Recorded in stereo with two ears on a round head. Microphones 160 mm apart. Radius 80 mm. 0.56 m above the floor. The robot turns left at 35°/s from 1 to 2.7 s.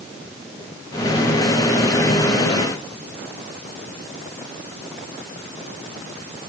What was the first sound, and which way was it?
Only background noise.